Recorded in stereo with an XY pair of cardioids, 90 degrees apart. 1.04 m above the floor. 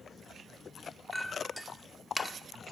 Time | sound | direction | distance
1.1 | a clink | 5° left | 2 m